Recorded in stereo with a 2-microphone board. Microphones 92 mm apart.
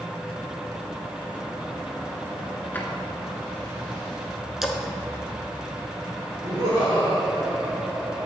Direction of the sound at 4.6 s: 5° right (ahead or behind).